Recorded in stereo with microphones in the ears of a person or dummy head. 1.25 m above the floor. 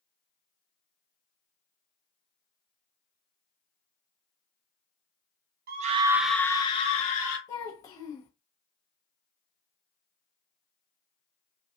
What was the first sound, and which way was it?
A scream, 50° right (ahead or behind).